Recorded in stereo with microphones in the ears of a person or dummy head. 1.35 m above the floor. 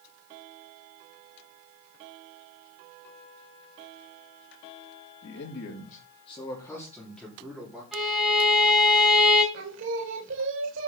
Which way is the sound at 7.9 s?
Centre (ahead or behind).